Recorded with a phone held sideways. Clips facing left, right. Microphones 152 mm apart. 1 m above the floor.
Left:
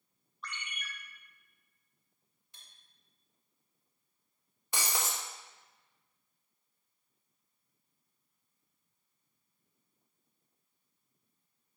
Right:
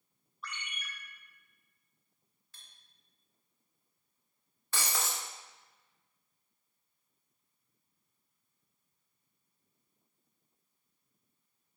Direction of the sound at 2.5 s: 20° left (ahead or behind).